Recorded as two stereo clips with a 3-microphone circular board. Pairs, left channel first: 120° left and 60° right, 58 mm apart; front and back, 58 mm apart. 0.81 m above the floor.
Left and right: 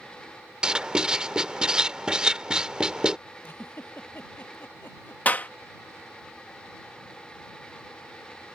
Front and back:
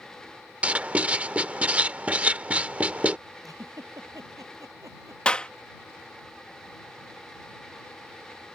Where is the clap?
65° left.